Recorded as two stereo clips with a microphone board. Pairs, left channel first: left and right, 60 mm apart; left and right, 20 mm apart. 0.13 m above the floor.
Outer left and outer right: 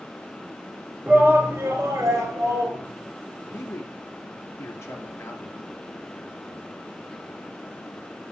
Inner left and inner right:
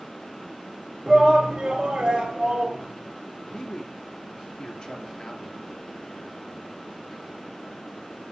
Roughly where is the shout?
Right.